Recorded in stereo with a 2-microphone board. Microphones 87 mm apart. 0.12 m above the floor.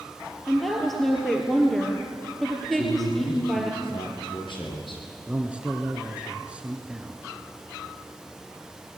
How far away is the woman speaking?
About 3 m.